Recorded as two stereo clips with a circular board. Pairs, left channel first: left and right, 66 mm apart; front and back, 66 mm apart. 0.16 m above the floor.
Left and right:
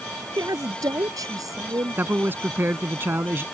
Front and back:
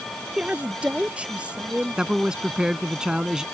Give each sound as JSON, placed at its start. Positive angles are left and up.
{"t": 0.4, "sound": "a woman speaking", "azimuth_deg": -110}
{"t": 2.0, "sound": "a man speaking", "azimuth_deg": -110}